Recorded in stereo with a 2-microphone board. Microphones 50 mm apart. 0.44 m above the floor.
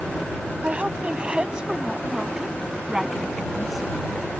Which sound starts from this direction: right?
A woman speaking, at 0.6 s.